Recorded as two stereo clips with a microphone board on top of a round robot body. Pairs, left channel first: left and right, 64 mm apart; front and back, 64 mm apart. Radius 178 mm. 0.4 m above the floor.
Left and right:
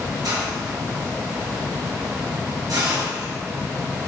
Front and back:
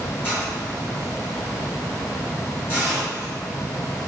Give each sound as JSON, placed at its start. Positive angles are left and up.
{"t": 0.2, "sound": "a hiss", "azimuth_deg": -60, "distance_m": 3.0}